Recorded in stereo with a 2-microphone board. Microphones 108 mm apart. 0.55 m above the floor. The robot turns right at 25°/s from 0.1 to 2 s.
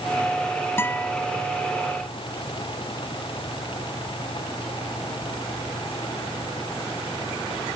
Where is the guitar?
20° left (ahead or behind); by 1.1 s 15° left (ahead or behind).